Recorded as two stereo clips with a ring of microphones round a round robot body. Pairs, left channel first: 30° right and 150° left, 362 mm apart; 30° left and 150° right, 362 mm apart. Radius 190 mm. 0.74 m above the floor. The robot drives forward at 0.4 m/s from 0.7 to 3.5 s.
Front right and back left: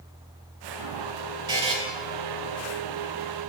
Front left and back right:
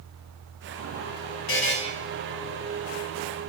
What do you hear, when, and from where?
1.5 s a buzzer: 75° left, 0.8 m; by 1.8 s 85° left, 0.8 m